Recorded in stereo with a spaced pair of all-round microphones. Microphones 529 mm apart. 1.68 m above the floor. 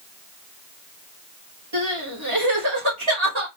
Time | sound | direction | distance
1.7 | crying | 60° right (ahead or behind) | 2.5 m